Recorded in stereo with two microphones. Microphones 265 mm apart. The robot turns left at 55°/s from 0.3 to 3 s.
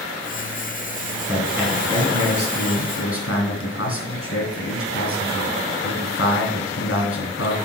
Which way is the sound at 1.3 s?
160° right.